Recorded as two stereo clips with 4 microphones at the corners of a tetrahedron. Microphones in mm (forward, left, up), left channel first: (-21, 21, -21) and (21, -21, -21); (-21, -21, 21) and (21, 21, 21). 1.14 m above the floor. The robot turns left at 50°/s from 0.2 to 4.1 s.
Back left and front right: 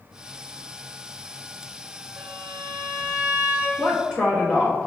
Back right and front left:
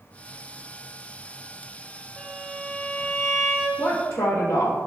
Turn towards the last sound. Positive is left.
turn(degrees=-125)